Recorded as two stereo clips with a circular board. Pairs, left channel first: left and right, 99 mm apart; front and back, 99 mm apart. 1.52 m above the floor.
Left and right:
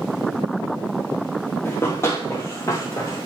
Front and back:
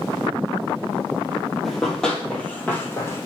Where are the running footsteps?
90° left, 1.6 m; by 3.3 s 50° left, 2.0 m.